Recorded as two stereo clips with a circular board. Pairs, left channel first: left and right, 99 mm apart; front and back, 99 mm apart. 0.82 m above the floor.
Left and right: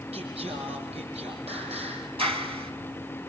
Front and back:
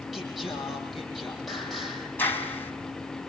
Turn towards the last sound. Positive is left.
turn(degrees=-70)